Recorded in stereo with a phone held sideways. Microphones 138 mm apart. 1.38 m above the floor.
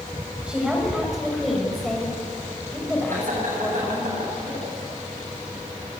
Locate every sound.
0.5 s a woman speaking: 5° right (ahead or behind), 7 m; by 4.1 s 20° left (ahead or behind), 6.5 m
3.1 s laughter: 70° right (ahead or behind), 9.5 m